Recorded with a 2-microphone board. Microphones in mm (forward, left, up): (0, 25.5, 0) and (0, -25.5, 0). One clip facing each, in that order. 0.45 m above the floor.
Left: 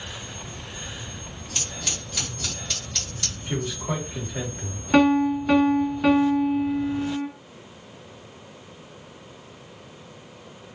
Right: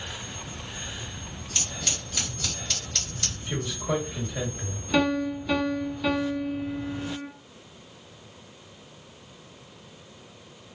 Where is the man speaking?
45° left (ahead or behind), 1.7 m.